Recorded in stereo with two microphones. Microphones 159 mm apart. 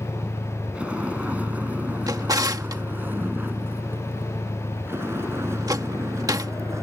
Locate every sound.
0.0 s a vehicle: 5° right (ahead or behind); by 6.8 s 15° right (ahead or behind)
2.1 s a drawer: 25° right (ahead or behind)